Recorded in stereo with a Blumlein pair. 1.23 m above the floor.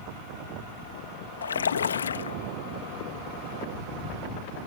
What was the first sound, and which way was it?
A splash, 70° left.